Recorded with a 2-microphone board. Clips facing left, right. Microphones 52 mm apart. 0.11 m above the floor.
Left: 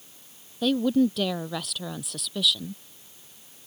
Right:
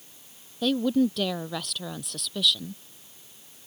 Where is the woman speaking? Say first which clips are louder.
Left 1 dB; 5° left (ahead or behind).